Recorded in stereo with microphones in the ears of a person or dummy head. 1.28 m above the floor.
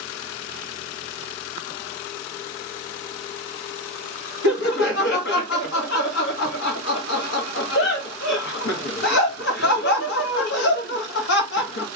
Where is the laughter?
65° left (ahead or behind), 1.5 m.